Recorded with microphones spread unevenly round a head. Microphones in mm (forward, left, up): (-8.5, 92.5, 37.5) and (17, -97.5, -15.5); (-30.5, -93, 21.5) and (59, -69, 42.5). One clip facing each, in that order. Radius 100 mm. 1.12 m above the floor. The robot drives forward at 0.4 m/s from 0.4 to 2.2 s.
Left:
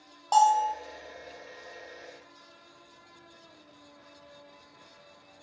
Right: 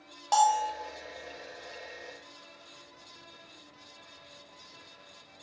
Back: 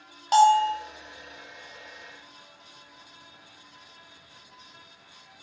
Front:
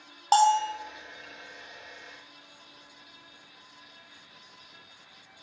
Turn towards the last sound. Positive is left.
turn(degrees=-130)